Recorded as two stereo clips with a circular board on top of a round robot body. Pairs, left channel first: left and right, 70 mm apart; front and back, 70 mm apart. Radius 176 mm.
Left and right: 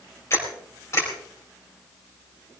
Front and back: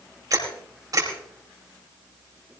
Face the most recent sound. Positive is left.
turn(degrees=140)